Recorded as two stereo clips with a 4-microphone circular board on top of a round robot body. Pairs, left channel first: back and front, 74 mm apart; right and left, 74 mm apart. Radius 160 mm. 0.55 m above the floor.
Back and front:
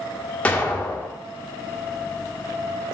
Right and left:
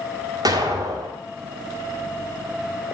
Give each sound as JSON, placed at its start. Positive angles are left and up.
{"t": 0.5, "sound": "an explosion", "azimuth_deg": 105, "distance_m": 1.7}